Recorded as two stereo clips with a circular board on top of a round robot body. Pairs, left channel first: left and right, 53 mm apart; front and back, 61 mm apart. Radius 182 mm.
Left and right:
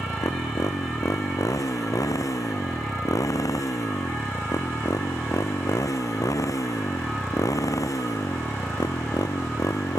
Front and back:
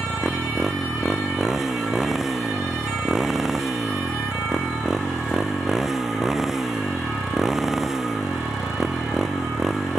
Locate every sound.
0.0 s a motorcycle: 95° left